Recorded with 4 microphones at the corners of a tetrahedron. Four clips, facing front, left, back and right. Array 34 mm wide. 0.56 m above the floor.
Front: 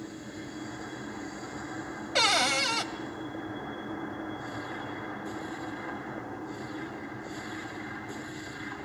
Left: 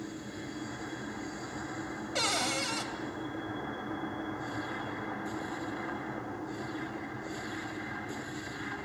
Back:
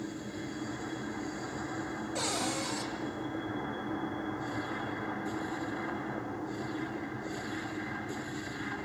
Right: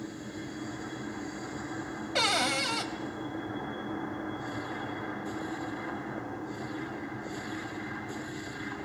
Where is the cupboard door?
10° right, 1.7 m.